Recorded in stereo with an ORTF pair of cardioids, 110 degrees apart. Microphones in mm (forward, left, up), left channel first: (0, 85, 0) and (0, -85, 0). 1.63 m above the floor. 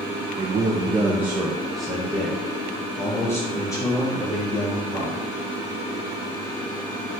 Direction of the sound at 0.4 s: 25° right.